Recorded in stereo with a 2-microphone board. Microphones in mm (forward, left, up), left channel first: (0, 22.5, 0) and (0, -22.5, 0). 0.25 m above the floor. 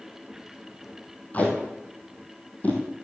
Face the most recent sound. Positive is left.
turn(degrees=35)  # may be behind; listen again after turning